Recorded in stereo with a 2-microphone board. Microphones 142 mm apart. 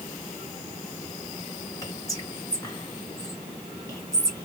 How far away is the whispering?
About 1.7 m.